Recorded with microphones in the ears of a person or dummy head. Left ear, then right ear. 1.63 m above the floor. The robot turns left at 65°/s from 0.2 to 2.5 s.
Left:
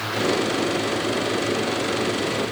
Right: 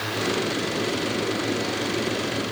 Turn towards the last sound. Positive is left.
No sound to turn to.